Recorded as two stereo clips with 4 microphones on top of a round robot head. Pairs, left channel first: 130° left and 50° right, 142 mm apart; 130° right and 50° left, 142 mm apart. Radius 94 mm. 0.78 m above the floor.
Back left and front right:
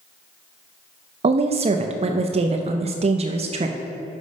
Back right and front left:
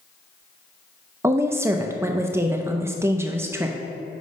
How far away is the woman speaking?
About 0.5 m.